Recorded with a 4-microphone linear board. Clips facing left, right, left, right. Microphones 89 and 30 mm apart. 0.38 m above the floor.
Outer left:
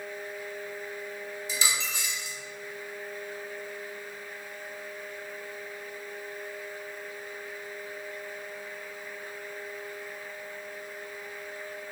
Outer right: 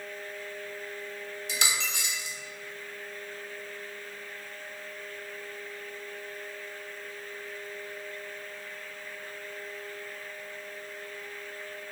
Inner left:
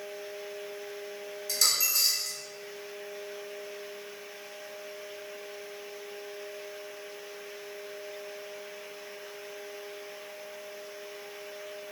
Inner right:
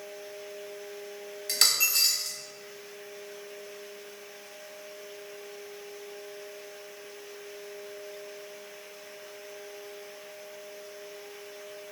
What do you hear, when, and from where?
1.5 s a dropped coin: 65° right (ahead or behind), 0.6 m